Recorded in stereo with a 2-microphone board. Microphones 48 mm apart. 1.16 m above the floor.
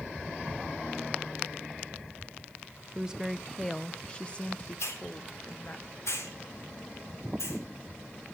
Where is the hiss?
85° left, 3.5 m.